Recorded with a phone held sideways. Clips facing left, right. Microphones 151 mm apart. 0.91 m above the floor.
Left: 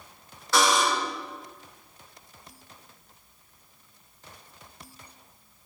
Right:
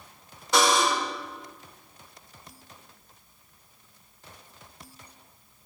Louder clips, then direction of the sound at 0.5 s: Right 1 dB; 20° right (ahead or behind).